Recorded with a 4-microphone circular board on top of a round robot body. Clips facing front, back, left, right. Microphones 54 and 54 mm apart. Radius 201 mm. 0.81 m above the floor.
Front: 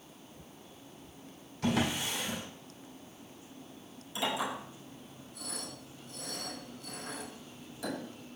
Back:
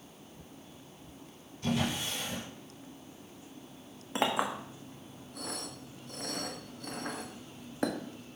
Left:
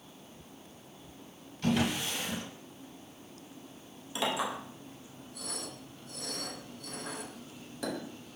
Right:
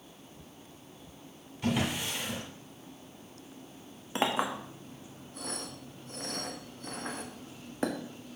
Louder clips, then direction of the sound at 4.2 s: Back 3 dB, right 3 dB; 140° right.